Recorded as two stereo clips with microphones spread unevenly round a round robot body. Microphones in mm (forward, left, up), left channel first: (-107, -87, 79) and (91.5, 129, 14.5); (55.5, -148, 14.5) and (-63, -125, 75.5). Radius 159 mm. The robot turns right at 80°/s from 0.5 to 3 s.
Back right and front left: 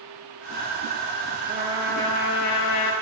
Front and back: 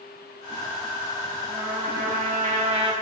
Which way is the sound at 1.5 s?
110° left.